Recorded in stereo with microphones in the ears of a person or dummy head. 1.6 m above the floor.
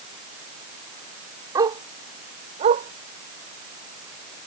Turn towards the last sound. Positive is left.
turn(degrees=-45)  # may be behind; listen again after turning